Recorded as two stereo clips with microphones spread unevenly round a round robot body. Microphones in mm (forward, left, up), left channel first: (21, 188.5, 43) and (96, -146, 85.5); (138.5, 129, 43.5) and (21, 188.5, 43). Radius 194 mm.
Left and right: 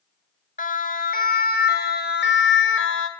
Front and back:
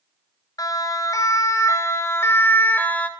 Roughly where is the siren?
Ahead left.